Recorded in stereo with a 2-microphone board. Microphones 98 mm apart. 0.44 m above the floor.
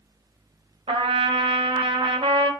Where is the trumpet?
65° right (ahead or behind), 0.8 m.